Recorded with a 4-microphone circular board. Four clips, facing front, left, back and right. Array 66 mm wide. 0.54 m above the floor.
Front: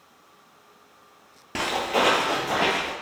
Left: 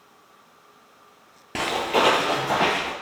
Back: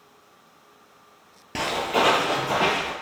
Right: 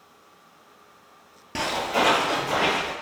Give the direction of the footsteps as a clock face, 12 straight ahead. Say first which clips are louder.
Left 2 dB, back 1 dB; 10 o'clock.